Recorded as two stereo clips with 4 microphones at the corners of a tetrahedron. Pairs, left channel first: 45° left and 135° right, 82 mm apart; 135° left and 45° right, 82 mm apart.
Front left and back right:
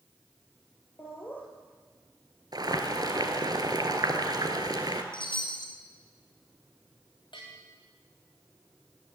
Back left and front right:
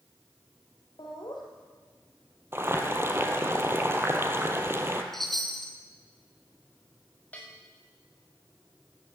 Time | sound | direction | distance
1.0 | laughter | 110° left | 3.5 m
2.5 | boiling | 105° right | 1.5 m
5.1 | a chime | 50° left | 1.8 m
7.3 | a bell | 60° left | 3.5 m